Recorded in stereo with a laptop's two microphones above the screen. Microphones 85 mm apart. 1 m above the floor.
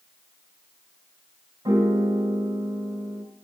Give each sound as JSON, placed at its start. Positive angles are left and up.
{"t": 1.6, "sound": "a piano", "side_deg": -50, "distance_m": 1.8}